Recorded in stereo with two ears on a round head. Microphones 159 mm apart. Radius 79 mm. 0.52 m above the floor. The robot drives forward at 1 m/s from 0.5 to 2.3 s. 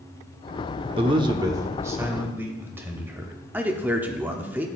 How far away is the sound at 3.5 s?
About 1.0 m.